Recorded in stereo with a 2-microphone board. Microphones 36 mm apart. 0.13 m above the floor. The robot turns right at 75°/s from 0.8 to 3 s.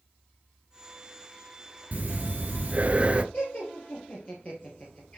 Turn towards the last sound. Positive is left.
turn(degrees=35)  # may be behind; listen again after turning